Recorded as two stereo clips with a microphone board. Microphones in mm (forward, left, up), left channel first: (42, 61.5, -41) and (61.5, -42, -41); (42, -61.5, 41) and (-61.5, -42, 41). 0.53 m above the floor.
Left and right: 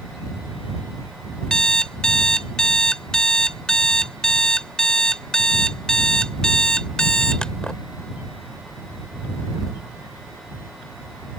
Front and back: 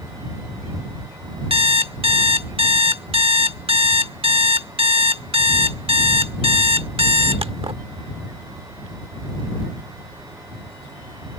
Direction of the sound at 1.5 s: Straight behind.